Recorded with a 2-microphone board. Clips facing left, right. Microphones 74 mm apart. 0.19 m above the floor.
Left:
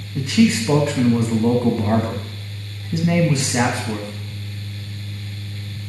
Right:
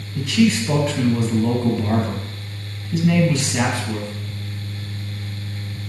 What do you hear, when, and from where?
0.1 s a man speaking: 20° left (ahead or behind), 1.1 m